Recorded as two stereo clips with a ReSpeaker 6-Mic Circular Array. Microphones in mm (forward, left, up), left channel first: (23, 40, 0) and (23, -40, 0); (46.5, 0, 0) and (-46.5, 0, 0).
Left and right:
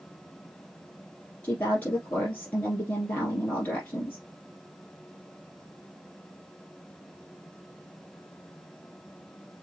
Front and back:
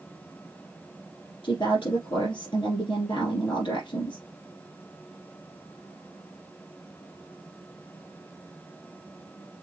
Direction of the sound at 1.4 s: 30° left.